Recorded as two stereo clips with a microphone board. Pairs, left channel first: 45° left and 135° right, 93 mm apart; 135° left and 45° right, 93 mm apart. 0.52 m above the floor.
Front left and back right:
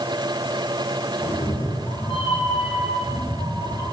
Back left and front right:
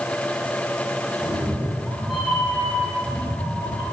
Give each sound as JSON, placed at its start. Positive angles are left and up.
{"t": 1.2, "sound": "a cat meowing", "azimuth_deg": 30, "distance_m": 4.5}